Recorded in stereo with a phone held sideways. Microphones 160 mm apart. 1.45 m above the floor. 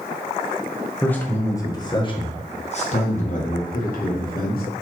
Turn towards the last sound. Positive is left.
turn(degrees=70)  # may be behind; listen again after turning